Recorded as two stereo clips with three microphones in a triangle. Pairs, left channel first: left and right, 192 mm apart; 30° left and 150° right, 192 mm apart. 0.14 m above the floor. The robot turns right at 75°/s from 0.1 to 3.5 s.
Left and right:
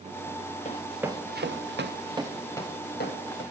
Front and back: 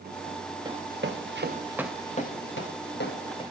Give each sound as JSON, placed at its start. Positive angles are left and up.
{"t": 0.7, "sound": "running footsteps", "azimuth_deg": 140, "distance_m": 1.0}